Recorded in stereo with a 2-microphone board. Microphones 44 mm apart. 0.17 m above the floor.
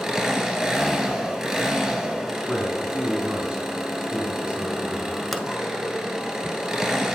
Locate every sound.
0.0 s an engine running: 15° right (ahead or behind), 1.5 m
2.5 s a man speaking: 20° right (ahead or behind), 1.4 m
5.3 s a pop: centre (ahead or behind), 0.8 m